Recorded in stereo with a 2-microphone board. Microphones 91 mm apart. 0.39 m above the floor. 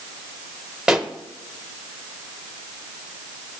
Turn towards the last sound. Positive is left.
turn(degrees=-5)  # may be behind; listen again after turning